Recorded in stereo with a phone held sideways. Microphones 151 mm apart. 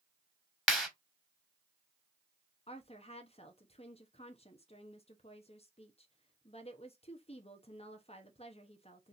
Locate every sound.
0.7 s a clap: centre (ahead or behind), 1.3 m
2.7 s a woman speaking: 40° left (ahead or behind), 0.8 m